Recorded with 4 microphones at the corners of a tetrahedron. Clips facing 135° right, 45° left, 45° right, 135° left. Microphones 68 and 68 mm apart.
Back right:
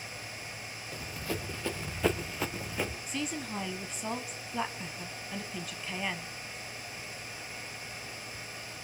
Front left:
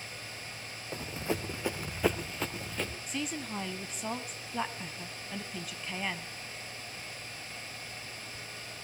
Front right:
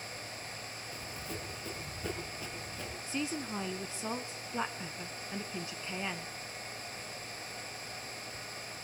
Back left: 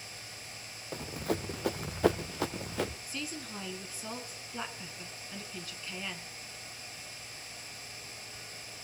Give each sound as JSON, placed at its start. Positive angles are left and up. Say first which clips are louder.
{"t": 0.9, "sound": "running footsteps", "louder": "front left 3 dB, back left 11 dB", "azimuth_deg": 105, "distance_m": 1.4}
{"t": 3.1, "sound": "a woman speaking", "louder": "back right 1 dB, front right 5 dB", "azimuth_deg": -45, "distance_m": 1.1}